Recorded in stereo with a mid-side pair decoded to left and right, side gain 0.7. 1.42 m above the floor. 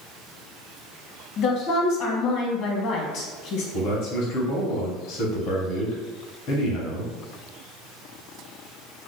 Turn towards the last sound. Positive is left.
turn(degrees=55)